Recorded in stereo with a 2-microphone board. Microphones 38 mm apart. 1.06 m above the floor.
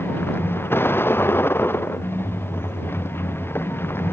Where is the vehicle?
75° left (ahead or behind).